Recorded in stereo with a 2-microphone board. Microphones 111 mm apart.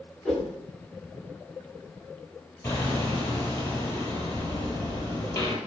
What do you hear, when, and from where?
0.2 s a whoosh: centre (ahead or behind), 10 m
2.6 s hammering: 25° left (ahead or behind), 4 m